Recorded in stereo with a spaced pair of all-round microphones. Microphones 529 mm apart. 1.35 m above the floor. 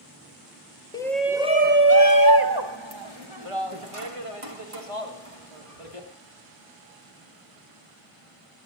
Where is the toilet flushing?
No toilet flushing in this recording.